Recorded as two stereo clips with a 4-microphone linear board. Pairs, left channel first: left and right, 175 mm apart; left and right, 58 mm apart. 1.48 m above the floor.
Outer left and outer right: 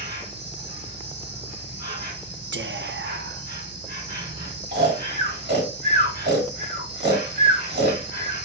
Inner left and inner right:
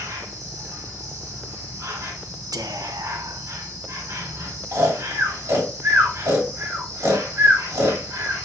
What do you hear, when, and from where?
0.0 s an insect: 65° right (ahead or behind), 2 m
2.5 s whispering: 85° right, 0.5 m
4.7 s snoring: 65° right (ahead or behind), 2 m